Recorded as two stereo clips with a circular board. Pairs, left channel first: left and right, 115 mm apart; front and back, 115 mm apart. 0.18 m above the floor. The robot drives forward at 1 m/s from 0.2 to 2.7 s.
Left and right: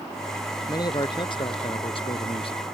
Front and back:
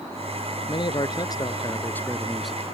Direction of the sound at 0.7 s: 40° left.